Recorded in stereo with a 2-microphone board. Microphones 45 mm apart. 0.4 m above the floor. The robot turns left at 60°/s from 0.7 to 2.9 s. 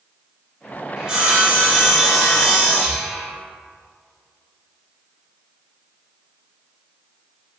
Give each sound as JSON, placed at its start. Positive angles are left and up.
{"t": 1.0, "sound": "sawing", "side_deg": -15, "distance_m": 1.3}
{"t": 2.8, "sound": "breathing", "side_deg": 0, "distance_m": 1.3}